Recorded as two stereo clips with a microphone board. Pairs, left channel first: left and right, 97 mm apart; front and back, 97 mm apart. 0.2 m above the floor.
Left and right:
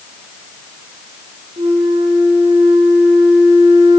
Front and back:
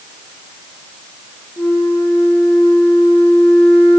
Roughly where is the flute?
Right.